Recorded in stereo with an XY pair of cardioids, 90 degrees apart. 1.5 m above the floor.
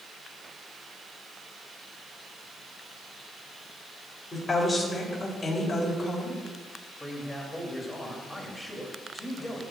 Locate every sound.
4.3 s a woman speaking: 25° left, 3 m
7.0 s a man speaking: 5° left, 3 m